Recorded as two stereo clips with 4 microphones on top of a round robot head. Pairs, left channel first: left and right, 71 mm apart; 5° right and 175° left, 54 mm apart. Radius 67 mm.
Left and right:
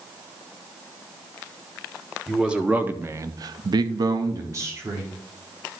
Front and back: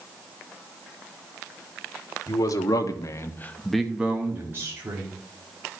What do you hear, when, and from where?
2.3 s a man speaking: 5° right, 1.8 m; by 5.2 s 145° right, 2.5 m